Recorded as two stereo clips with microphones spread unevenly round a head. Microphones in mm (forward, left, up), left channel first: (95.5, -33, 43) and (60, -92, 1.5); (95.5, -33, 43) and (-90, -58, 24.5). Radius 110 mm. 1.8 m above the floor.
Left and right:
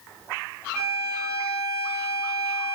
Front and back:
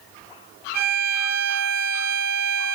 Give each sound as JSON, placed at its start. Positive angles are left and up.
{"t": 0.7, "sound": "a violin", "azimuth_deg": 140, "distance_m": 2.5}